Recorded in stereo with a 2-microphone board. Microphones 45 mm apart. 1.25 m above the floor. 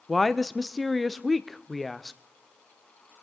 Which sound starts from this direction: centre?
A woman speaking, at 0.1 s.